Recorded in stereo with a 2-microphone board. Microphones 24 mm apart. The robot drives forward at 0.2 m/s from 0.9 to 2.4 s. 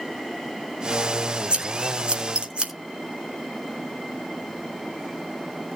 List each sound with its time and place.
1.5 s scissors: 45° right (ahead or behind), 2.5 m